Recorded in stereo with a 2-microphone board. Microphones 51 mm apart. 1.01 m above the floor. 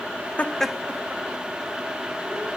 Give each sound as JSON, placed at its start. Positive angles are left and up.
{"t": 0.4, "sound": "laughter", "side_deg": 30, "distance_m": 0.7}